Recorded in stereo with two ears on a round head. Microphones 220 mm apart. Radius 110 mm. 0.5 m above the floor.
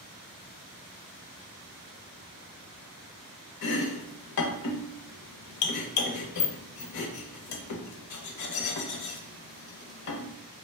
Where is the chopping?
75° left (ahead or behind), 0.6 m.